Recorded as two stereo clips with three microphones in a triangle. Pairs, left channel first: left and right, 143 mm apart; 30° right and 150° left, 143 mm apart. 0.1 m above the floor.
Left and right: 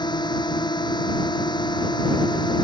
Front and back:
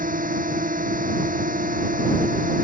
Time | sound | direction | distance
0.0 | a drone | 150° left | ?